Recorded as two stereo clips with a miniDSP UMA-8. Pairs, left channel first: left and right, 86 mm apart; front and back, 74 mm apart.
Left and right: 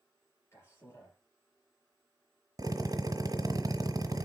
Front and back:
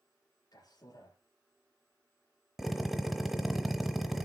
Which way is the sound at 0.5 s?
35° left.